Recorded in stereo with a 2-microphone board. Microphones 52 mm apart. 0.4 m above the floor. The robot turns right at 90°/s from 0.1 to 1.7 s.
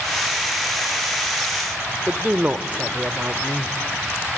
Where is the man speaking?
30° right (ahead or behind), 0.9 m.